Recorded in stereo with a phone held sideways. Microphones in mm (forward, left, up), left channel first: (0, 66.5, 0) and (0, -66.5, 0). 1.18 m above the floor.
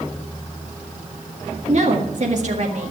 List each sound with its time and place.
1.7 s a woman speaking: 55° right (ahead or behind), 1.9 m